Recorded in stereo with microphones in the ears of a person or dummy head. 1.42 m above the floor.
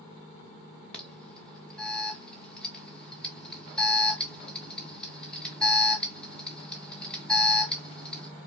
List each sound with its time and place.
0.9 s an alarm: 5° left (ahead or behind), 0.8 m